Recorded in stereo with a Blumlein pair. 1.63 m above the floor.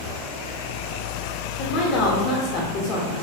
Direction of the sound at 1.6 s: 40° left.